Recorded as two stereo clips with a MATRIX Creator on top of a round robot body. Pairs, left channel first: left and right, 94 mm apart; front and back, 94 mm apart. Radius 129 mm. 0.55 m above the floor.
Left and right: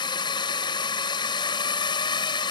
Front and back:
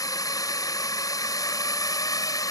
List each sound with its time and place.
0.0 s a drone: 50° left